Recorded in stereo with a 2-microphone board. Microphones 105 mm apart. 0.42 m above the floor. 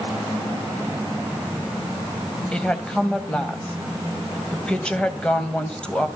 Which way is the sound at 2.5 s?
10° left (ahead or behind).